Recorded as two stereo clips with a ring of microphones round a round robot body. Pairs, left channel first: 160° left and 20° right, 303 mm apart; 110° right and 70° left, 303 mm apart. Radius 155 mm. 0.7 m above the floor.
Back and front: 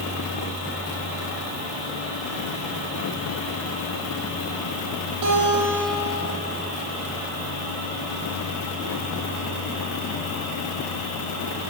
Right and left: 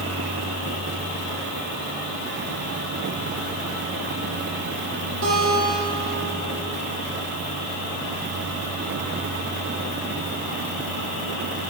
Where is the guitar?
15° left, 10 m.